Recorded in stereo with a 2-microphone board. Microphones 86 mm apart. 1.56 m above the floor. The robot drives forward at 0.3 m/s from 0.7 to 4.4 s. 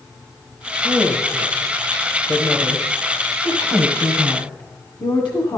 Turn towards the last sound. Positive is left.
turn(degrees=60)  # may be behind; listen again after turning